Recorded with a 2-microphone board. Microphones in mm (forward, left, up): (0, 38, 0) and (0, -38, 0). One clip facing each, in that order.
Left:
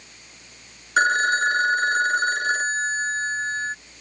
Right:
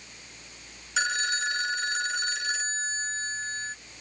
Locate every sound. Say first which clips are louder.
1.0 s a phone ringing: left 10 dB; 45° left (ahead or behind)